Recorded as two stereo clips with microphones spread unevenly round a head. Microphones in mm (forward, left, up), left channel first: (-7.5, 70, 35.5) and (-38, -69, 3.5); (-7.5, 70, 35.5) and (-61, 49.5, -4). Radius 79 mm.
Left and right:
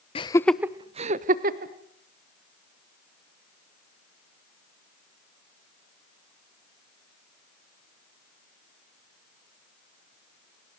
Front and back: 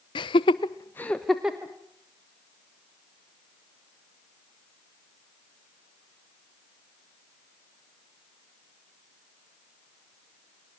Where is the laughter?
20° left, 1.0 m; by 1.7 s 95° right, 1.9 m.